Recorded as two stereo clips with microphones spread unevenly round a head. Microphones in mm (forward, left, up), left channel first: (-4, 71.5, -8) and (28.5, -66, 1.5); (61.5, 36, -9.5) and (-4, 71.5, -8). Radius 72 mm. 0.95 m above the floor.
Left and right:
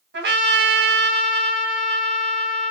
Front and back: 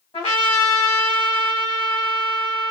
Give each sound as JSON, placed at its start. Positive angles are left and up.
{"t": 0.1, "sound": "a trumpet", "azimuth_deg": -80, "distance_m": 1.2}